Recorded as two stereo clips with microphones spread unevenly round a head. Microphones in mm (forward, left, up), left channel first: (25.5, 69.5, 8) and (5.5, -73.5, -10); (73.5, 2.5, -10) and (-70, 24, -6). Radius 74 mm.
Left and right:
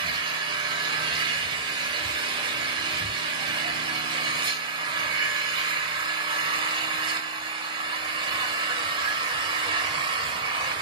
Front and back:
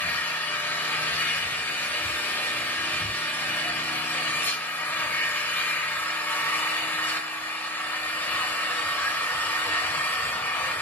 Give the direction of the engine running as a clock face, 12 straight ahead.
2 o'clock.